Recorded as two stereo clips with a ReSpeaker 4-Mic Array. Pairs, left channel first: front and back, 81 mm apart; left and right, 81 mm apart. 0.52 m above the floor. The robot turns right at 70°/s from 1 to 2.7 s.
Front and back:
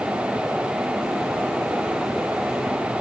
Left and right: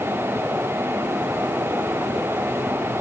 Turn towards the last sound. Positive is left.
No sound to turn to.